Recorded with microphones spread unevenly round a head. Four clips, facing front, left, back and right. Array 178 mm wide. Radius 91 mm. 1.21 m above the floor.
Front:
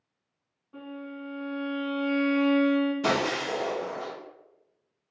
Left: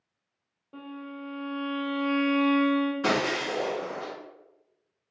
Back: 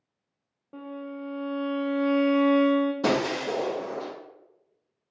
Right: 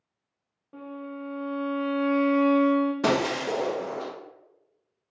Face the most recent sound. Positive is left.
turn(degrees=-130)